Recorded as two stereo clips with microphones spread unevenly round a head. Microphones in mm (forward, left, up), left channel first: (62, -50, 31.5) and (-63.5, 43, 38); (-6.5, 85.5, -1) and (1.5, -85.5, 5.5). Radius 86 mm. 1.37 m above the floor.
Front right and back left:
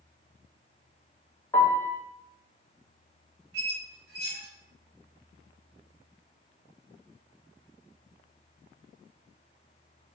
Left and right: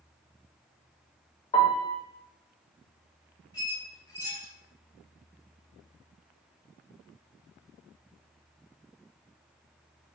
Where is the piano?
40° left, 0.9 m.